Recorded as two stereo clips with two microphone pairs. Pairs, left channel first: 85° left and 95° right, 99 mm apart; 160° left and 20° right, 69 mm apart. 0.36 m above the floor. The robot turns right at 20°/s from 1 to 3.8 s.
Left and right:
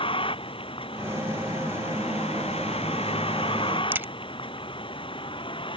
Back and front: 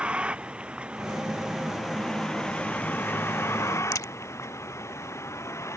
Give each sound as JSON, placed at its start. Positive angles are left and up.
{"t": 0.0, "sound": "a vehicle", "azimuth_deg": 55}
{"t": 3.9, "sound": "a crack", "azimuth_deg": -165}